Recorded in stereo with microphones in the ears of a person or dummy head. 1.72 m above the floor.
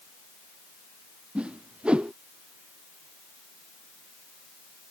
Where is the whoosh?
5° right (ahead or behind).